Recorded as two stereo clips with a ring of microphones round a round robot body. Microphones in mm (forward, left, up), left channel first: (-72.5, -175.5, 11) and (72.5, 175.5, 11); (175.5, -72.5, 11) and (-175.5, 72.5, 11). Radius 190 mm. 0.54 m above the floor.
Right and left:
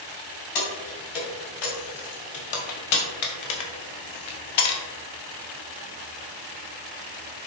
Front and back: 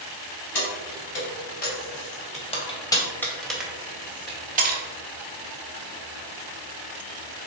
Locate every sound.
0.6 s keys jangling: 80° right, 2.5 m; by 4.8 s 140° right, 1.4 m